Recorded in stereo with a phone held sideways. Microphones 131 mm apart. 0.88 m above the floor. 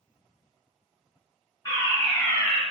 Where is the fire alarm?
25° left (ahead or behind), 1.6 m.